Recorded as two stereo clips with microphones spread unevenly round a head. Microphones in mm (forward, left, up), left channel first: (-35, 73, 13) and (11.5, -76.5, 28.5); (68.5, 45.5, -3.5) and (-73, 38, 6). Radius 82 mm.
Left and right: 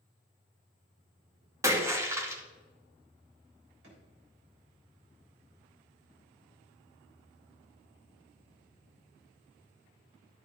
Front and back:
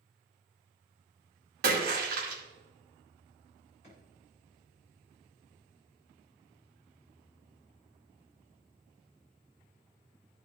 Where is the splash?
145° right, 2 m.